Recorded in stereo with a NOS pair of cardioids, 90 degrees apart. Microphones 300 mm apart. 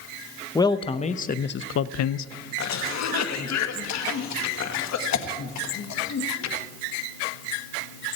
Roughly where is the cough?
Ahead left.